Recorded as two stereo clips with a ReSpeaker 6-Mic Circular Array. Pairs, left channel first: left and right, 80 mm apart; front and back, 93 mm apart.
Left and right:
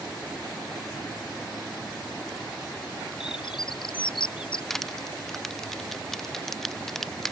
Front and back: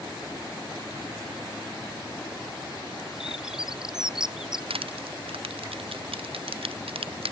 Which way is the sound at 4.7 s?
175° left.